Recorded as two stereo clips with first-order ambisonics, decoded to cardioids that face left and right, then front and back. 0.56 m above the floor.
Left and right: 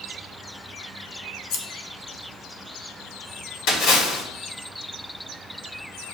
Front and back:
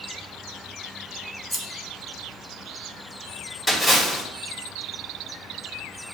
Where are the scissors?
80° left, 1.1 m.